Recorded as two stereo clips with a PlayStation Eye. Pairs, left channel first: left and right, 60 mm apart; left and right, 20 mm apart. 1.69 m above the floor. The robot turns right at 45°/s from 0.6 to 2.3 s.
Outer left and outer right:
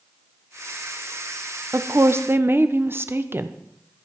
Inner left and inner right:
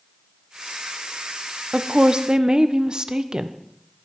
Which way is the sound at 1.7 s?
55° right (ahead or behind).